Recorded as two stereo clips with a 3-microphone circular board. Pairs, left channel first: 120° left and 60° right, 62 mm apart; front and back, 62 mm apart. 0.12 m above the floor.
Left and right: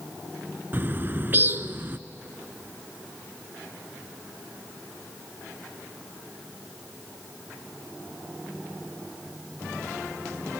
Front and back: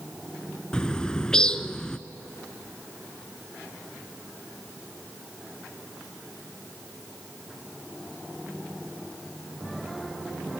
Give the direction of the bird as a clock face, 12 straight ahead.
2 o'clock.